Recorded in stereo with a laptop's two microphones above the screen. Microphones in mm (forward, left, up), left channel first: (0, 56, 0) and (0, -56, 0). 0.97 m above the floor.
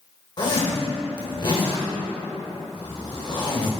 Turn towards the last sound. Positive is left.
turn(degrees=45)  # may be behind; listen again after turning